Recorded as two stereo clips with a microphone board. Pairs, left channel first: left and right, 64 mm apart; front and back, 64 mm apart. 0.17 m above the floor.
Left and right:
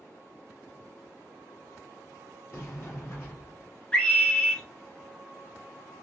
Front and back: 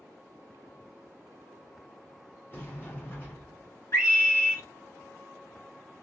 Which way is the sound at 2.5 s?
50° left.